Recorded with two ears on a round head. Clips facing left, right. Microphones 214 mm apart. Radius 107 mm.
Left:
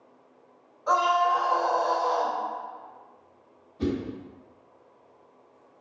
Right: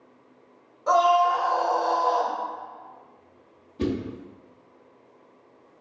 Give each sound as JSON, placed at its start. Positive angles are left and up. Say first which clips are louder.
{"t": 0.9, "sound": "a scream", "louder": "right 5 dB", "side_deg": -50, "distance_m": 1.6}
{"t": 3.8, "sound": "a whoosh", "louder": "right 1 dB", "side_deg": -70, "distance_m": 0.9}